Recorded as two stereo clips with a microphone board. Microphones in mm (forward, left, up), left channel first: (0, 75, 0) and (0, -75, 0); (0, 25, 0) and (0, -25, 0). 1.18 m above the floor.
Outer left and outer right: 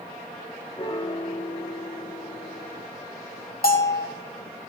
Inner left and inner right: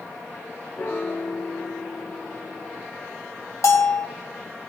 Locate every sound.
0.8 s a piano: 35° left (ahead or behind), 0.9 m
3.6 s a bell: 70° left (ahead or behind), 1.9 m